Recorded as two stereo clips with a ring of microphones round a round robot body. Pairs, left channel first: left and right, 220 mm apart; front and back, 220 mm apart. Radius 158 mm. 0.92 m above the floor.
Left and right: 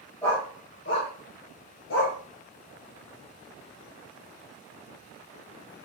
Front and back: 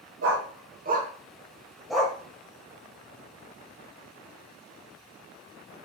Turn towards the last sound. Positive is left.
turn(degrees=85)